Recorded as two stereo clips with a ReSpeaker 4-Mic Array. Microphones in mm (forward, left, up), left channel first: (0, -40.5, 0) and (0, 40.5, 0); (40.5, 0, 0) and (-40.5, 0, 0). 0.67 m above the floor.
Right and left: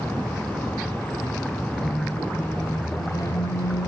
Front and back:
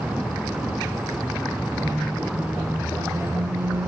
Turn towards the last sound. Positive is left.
turn(degrees=-130)